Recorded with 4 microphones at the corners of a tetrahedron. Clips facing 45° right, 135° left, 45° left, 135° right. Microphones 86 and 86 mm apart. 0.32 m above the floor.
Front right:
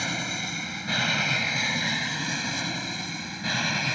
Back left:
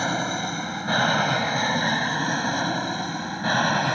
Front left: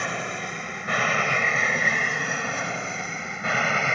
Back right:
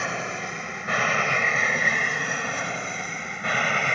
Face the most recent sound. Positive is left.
turn(degrees=130)